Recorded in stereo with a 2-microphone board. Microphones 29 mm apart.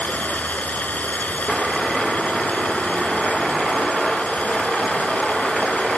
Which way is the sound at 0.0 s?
80° left.